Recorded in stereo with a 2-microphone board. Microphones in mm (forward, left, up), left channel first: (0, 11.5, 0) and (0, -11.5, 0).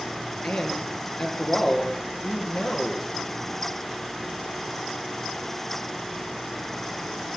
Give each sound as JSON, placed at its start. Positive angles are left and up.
{"t": 0.4, "sound": "a man speaking", "side_deg": 70, "distance_m": 3.5}